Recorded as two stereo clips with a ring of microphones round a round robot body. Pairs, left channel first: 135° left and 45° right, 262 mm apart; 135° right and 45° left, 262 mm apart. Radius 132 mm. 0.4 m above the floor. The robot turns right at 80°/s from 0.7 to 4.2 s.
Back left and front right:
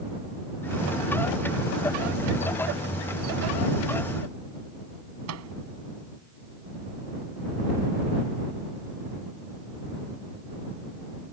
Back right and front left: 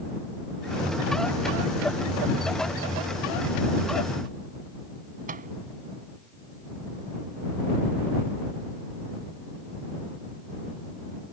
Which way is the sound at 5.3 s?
15° right.